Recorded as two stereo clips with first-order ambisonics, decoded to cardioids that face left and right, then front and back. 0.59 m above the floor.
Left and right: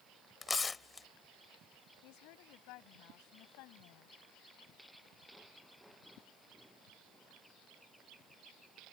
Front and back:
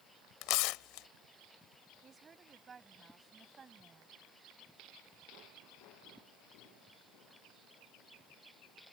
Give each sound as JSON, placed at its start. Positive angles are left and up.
{"t": 0.4, "sound": "tearing paper", "azimuth_deg": 15}
{"t": 2.0, "sound": "a woman speaking", "azimuth_deg": 110}